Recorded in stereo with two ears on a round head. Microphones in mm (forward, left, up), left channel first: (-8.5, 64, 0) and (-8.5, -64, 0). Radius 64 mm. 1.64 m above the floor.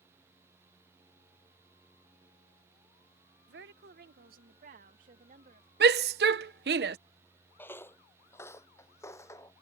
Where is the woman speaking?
80° right; by 5.7 s 60° right (ahead or behind).